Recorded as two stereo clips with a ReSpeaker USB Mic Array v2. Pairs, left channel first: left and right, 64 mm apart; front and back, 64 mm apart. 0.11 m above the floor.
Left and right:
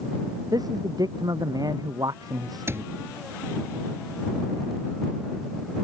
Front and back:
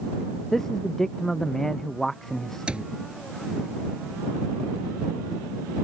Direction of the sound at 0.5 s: 85° right.